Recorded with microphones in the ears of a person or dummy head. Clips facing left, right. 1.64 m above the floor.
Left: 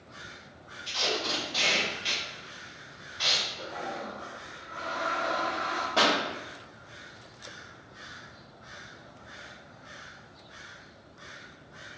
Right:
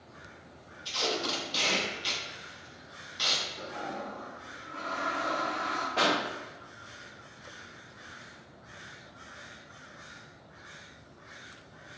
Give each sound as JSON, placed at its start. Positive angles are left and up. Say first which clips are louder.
{"t": 0.8, "sound": "tape being pulled", "louder": "even", "side_deg": -45, "distance_m": 0.9}
{"t": 3.6, "sound": "a toilet flushing", "louder": "left 1 dB", "side_deg": -40, "distance_m": 1.7}
{"t": 6.0, "sound": "a pop", "louder": "left 2 dB", "side_deg": 50, "distance_m": 1.9}